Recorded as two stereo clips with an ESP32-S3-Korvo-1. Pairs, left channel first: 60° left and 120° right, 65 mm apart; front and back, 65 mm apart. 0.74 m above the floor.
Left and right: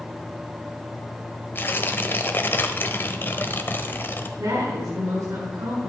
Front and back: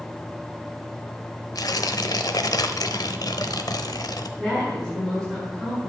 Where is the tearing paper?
5° left, 0.9 m.